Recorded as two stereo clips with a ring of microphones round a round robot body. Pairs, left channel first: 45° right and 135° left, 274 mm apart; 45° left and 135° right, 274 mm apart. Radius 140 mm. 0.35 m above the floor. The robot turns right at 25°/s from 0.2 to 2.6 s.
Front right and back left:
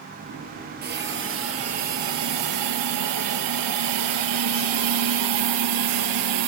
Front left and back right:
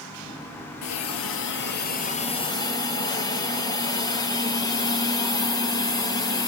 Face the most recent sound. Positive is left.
turn(degrees=120)